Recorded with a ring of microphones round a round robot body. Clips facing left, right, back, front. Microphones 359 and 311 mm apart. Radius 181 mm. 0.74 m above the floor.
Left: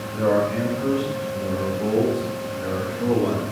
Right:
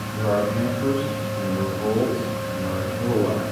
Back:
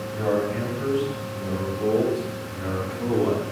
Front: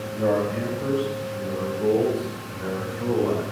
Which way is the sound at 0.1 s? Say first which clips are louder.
Left 2 dB, front 1 dB; 165° right.